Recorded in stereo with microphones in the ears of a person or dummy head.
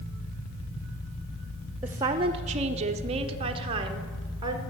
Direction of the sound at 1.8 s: 10° right (ahead or behind).